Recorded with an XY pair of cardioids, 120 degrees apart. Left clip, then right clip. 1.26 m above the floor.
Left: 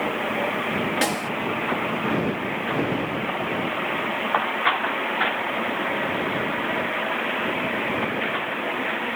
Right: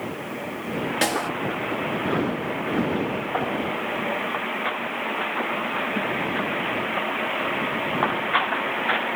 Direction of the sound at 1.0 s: 5° right.